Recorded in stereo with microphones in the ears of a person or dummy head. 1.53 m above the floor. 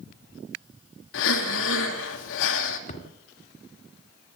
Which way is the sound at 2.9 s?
45° left (ahead or behind).